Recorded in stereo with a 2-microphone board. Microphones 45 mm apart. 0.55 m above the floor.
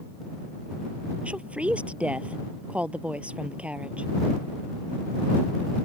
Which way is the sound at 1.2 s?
30° right (ahead or behind).